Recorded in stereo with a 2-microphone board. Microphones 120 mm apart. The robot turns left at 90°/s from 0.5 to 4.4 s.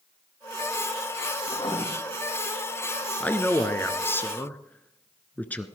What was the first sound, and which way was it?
Writing, 50° left.